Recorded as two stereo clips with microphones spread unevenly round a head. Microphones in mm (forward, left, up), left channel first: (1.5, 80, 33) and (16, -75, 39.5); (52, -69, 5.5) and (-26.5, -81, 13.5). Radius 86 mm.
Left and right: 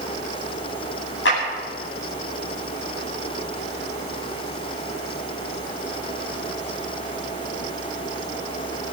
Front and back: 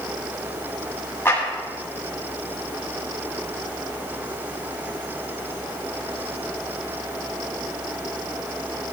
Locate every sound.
1.2 s a clap: 90° left, 10 m